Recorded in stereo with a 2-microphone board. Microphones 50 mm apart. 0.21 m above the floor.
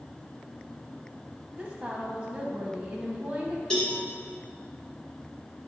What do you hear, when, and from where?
1.6 s a woman speaking: 25° right (ahead or behind), 1.0 m
3.7 s a cowbell: 20° left (ahead or behind), 1.4 m